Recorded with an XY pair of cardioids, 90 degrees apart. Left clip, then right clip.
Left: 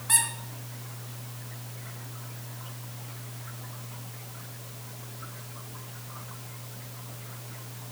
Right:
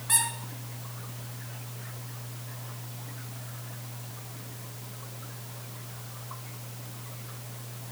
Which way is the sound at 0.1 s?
15° left.